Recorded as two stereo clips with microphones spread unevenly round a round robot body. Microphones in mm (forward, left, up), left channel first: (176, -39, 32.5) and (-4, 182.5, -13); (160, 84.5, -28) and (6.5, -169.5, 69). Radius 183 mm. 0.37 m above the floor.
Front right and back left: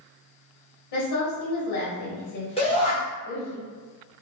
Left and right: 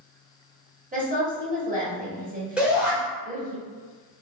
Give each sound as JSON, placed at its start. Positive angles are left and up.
{"t": 0.9, "sound": "a woman speaking", "azimuth_deg": -50, "distance_m": 1.7}
{"t": 2.6, "sound": "a shout", "azimuth_deg": 10, "distance_m": 1.5}